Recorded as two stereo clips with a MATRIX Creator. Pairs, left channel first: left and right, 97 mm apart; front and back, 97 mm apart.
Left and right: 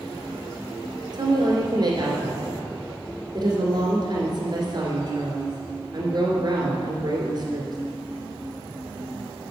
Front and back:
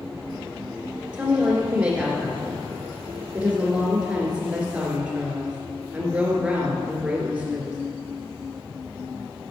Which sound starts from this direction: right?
A woman speaking, at 1.1 s.